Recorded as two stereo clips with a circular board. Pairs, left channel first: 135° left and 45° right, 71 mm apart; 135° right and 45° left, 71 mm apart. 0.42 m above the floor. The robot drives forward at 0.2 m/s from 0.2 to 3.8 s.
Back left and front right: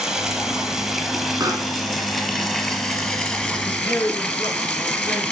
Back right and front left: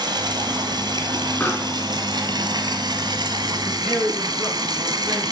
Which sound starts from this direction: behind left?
A man speaking, at 3.6 s.